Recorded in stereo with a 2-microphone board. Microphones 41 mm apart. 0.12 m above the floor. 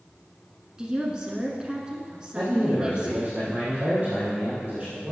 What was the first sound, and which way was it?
A woman speaking, 20° right (ahead or behind).